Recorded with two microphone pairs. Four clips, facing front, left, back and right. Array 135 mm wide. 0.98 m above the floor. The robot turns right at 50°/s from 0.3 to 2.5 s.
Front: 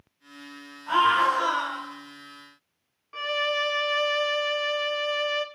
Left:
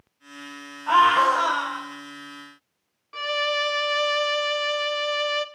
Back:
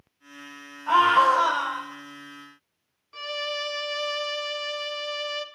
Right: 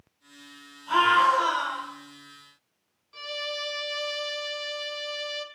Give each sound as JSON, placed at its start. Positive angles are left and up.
{"t": 0.9, "sound": "a scream", "azimuth_deg": 110, "distance_m": 6.0}
{"t": 3.1, "sound": "a violin", "azimuth_deg": 65, "distance_m": 1.0}